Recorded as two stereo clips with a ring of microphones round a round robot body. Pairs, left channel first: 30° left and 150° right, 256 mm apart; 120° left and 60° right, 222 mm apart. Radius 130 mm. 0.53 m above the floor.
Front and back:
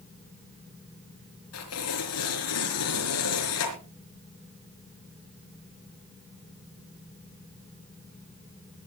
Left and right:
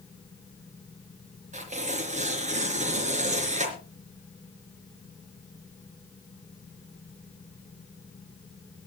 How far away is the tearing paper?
About 4.5 m.